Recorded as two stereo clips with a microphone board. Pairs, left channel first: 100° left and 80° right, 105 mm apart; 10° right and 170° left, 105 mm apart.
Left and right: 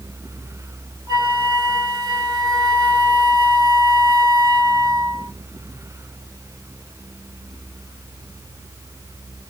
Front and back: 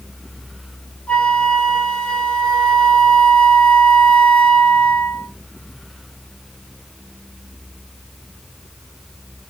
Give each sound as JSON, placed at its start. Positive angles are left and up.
{"t": 1.1, "sound": "a flute", "azimuth_deg": -75, "distance_m": 1.3}